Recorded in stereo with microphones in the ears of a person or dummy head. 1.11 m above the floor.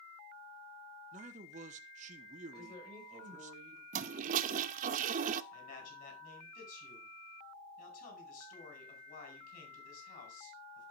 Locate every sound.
1.1 s a man speaking: 30° right (ahead or behind), 0.9 m
2.5 s a woman speaking: 25° left (ahead or behind), 6 m
3.9 s a toilet flushing: 40° right (ahead or behind), 0.6 m
5.5 s a man speaking: 45° left (ahead or behind), 4.5 m